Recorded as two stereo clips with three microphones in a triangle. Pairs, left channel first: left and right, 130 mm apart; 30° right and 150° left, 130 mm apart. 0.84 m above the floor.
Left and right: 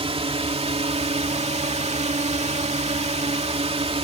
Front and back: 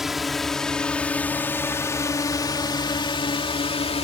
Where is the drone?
125° right; by 4.0 s 60° right.